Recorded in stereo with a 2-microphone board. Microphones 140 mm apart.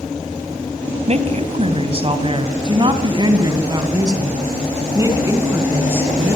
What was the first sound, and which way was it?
A woman speaking, 50° right (ahead or behind).